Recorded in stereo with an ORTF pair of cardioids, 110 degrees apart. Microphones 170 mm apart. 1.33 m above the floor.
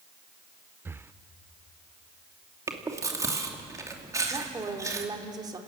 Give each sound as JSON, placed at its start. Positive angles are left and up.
{"t": 0.8, "sound": "breathing", "azimuth_deg": -15, "distance_m": 0.5}
{"t": 2.7, "sound": "chewing", "azimuth_deg": -20, "distance_m": 2.5}
{"t": 4.3, "sound": "a woman speaking", "azimuth_deg": -25, "distance_m": 3.0}